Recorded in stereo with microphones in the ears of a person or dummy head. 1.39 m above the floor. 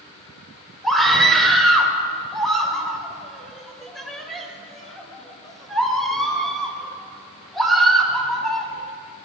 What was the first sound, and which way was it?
A scream, centre (ahead or behind).